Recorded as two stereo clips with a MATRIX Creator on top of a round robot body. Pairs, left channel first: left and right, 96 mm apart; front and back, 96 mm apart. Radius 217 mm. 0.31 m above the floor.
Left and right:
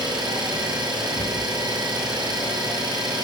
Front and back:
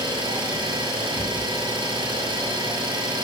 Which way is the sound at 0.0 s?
135° right.